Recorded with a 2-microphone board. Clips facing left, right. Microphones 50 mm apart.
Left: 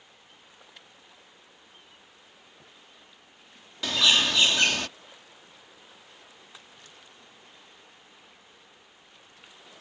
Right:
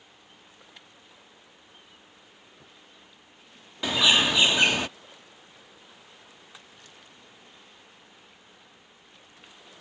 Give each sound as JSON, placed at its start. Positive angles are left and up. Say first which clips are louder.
{"t": 3.8, "sound": "a bird", "louder": "right 2 dB", "side_deg": -15}